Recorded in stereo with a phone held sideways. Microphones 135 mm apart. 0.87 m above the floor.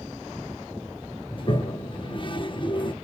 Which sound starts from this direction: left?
A toilet flushing, at 1.3 s.